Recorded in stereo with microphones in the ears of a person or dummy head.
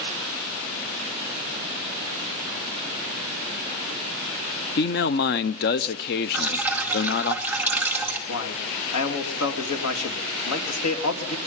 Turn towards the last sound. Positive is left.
turn(degrees=80)